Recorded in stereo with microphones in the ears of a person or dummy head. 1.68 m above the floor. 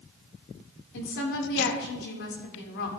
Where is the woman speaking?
65° left (ahead or behind), 2 m.